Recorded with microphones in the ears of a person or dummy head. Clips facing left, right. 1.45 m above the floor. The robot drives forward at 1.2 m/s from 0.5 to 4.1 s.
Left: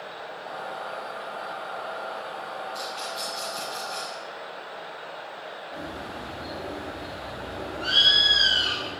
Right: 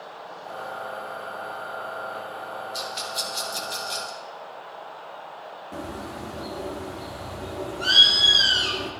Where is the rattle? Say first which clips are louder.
Right 1 dB; 50° right (ahead or behind), 3 m; by 4.2 s 80° right, 2.5 m.